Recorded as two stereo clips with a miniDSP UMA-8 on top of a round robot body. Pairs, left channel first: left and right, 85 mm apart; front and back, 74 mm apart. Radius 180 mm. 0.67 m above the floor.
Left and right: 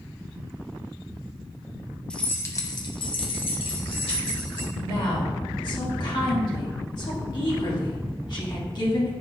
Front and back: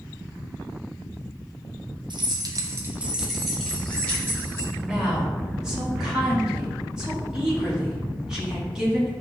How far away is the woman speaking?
About 1.7 m.